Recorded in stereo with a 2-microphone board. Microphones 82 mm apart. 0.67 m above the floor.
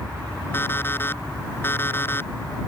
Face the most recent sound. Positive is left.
turn(degrees=25)  # may be behind; listen again after turning